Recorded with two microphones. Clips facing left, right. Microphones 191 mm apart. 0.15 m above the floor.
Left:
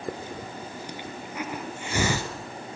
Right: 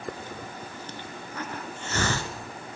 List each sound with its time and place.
0.1 s a hiss: 10° left (ahead or behind), 1.5 m